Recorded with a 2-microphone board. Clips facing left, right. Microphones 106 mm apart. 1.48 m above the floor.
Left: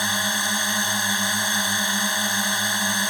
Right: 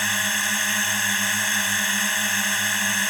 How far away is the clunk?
No clunk in this recording.